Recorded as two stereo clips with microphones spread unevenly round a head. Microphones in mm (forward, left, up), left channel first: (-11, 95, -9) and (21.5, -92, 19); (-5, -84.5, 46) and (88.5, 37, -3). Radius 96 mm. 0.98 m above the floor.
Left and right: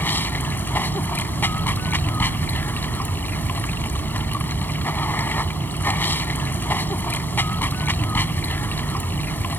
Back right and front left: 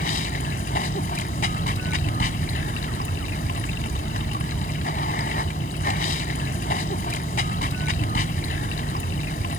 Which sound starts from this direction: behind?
Running water, at 0.0 s.